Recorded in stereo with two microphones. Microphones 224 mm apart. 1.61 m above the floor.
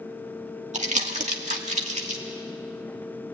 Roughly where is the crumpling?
Right.